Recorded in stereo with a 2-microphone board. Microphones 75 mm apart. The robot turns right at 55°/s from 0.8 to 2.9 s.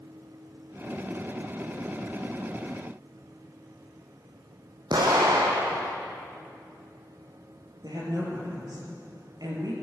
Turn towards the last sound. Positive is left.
turn(degrees=-60)  # may be behind; listen again after turning